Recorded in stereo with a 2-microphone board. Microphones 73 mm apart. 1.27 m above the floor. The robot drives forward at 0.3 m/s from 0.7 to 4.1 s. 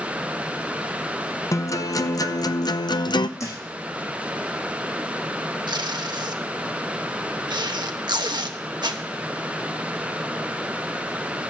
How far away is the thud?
About 6 m.